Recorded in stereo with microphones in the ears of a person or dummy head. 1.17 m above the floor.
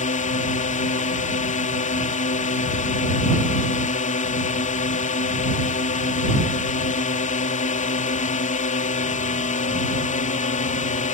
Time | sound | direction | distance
0.0 | a drone | 40° left (ahead or behind) | ?